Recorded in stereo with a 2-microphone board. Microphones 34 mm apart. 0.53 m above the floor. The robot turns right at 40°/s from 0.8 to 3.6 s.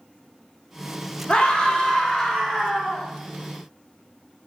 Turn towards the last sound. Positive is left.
turn(degrees=-150)